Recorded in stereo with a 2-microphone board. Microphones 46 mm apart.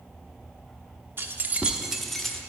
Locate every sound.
1.2 s keys jangling: 55° right (ahead or behind), 0.6 m; by 2.4 s 15° left (ahead or behind), 0.9 m